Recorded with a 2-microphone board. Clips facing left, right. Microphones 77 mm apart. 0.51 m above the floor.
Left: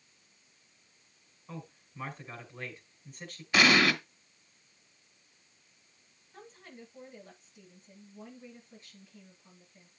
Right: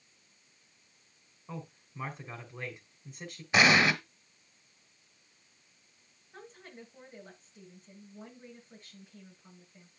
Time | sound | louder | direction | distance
1.5 | a man speaking | right 2 dB | 20° right (ahead or behind) | 2.5 m
3.5 | an explosion | even | 20° right (ahead or behind) | 1.4 m
6.3 | a woman speaking | right 1 dB | 55° right (ahead or behind) | 7.5 m